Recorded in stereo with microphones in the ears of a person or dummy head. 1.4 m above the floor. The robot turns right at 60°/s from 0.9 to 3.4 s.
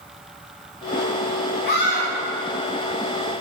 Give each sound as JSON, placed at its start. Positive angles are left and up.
{"t": 1.6, "sound": "a scream", "side_deg": 50, "distance_m": 0.9}